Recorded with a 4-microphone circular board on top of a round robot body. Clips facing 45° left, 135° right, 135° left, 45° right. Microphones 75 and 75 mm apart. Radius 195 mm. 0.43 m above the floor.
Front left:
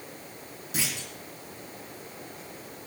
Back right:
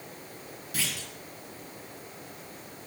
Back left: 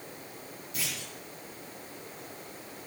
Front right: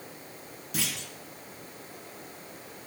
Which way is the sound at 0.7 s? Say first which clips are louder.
Front left 2 dB, front right 4 dB; 25° right.